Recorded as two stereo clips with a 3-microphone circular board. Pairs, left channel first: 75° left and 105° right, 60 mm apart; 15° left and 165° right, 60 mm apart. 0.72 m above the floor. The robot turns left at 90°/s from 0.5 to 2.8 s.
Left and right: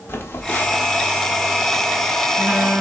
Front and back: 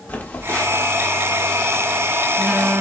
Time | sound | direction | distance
0.1 | a phone buzzing | 60° left | 0.9 m